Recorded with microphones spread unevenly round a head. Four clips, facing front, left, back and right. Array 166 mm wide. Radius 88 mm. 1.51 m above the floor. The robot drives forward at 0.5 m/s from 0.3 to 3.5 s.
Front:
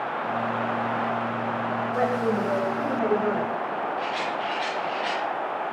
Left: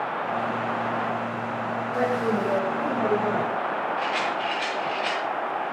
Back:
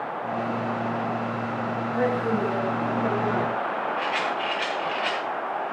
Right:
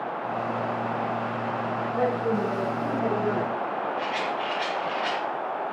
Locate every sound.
1.9 s a woman speaking: 40° left, 8 m; by 3.5 s 45° left, 7.5 m
4.0 s a rattle: 170° right, 6 m